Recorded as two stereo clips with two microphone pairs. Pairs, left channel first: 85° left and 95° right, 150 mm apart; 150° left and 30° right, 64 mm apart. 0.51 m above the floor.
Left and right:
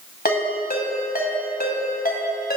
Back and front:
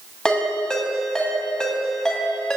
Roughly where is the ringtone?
Left.